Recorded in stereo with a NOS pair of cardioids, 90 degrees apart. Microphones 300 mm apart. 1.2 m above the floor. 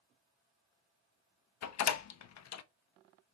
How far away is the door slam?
About 1.0 m.